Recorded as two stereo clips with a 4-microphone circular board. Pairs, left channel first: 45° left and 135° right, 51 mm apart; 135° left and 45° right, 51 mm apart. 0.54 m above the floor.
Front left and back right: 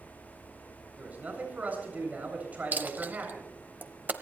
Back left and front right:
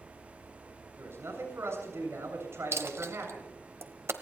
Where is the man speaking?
75° right, 7.5 m.